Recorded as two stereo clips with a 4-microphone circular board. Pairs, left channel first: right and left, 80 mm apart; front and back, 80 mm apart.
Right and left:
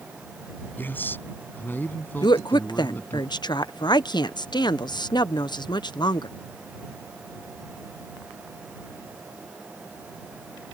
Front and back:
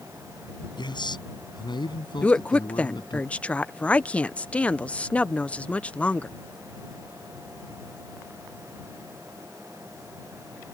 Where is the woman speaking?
75° right.